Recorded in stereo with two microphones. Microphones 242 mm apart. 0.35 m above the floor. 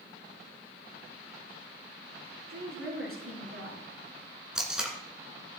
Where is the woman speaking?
60° right (ahead or behind), 5 m.